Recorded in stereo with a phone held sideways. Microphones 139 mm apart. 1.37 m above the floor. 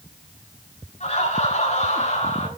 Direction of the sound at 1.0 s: 55° left (ahead or behind).